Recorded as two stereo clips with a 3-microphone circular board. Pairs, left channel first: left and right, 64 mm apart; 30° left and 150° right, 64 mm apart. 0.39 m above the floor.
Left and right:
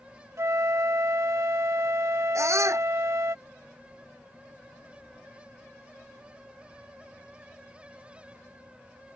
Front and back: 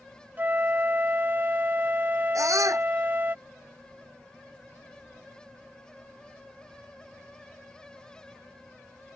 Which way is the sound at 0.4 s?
100° right.